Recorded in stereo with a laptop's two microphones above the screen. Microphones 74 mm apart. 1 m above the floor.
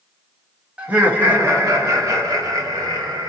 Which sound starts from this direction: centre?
Laughter, at 0.8 s.